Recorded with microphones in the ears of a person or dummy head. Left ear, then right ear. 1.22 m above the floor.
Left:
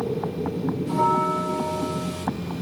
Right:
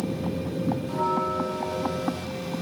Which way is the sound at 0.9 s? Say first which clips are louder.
Left 6 dB; 15° left (ahead or behind).